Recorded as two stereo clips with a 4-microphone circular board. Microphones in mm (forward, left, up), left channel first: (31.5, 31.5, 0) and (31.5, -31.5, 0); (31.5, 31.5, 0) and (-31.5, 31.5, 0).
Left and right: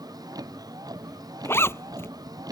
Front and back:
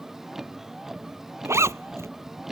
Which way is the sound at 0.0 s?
95° right.